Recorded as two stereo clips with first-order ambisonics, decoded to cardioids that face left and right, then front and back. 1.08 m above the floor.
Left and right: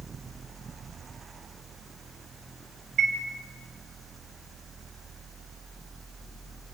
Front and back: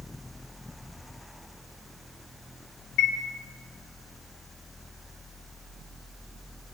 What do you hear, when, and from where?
3.0 s a chime: 35° right, 3.5 m